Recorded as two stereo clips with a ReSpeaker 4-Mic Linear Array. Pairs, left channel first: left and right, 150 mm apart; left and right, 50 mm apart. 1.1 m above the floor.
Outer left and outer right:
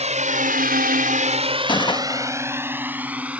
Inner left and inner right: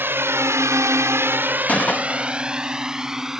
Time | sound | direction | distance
0.0 | a drone | 50° right (ahead or behind) | ?
1.7 | a gunshot | 30° left (ahead or behind) | ?